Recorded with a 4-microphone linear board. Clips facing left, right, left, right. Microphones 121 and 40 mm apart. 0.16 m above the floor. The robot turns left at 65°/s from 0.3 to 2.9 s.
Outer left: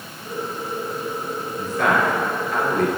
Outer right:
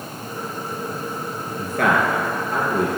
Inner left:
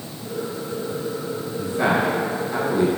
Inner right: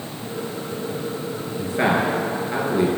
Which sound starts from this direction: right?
A man speaking, at 1.6 s.